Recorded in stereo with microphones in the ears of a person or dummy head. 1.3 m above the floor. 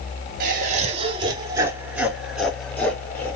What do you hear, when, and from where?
0.4 s laughter: 50° right (ahead or behind), 1.1 m; by 3.4 s 10° left (ahead or behind), 1.8 m